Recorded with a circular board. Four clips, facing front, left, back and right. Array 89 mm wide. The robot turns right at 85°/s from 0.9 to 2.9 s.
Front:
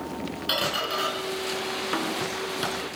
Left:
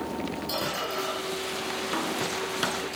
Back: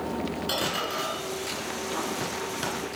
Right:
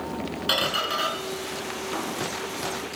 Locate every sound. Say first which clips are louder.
0.5 s a squeak: right 4 dB, front 1 dB; 75° right, 3.5 m; by 2.7 s 80° left, 3.5 m